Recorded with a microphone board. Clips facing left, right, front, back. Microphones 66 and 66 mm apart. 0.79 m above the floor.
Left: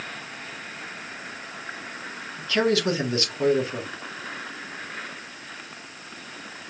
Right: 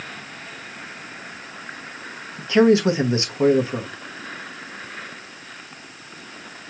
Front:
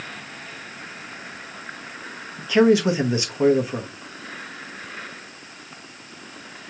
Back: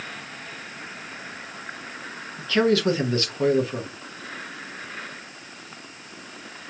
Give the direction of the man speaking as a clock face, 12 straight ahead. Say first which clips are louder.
Right 7 dB, front 4 dB; 2 o'clock.